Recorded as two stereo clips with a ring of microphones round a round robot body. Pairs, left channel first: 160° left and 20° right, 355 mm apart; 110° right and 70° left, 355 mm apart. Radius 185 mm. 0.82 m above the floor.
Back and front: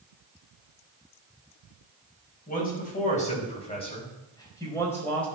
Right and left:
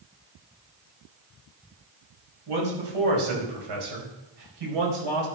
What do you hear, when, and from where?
2.5 s a man speaking: 90° left, 5.5 m; by 5.3 s 70° left, 4 m